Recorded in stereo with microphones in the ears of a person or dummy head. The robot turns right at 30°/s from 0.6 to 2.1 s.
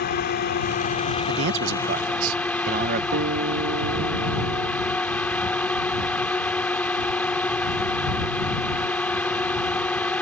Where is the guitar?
65° right (ahead or behind).